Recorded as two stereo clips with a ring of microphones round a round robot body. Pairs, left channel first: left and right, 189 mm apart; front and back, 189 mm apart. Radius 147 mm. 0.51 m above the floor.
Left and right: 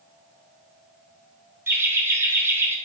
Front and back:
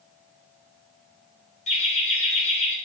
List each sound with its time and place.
1.7 s laughter: 15° right, 0.8 m